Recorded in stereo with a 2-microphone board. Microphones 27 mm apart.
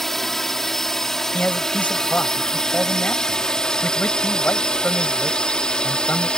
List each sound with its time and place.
0.0 s a drone: 10° left (ahead or behind); by 6.4 s 30° left (ahead or behind)
1.3 s a man speaking: 75° left (ahead or behind)